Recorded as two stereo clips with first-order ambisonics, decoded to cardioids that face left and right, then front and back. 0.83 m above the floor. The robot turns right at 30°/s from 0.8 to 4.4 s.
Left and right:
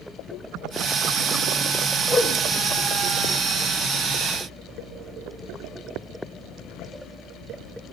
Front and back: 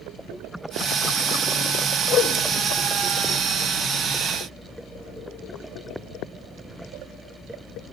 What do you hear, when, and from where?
2.1 s a whoosh: 30° left, 0.9 m; by 2.4 s 35° left, 0.9 m